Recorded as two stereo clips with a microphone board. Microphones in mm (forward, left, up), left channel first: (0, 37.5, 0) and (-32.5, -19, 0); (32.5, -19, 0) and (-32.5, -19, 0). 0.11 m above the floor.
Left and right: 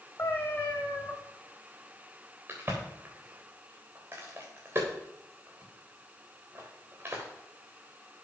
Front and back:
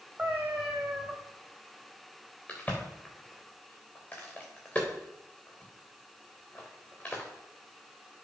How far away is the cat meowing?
About 3 m.